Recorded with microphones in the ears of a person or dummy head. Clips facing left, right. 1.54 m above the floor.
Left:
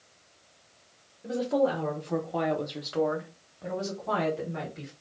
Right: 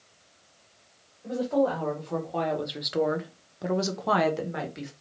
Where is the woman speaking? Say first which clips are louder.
Right 1 dB; 30° left (ahead or behind), 1.2 m; by 4.9 s 70° right (ahead or behind), 1.1 m.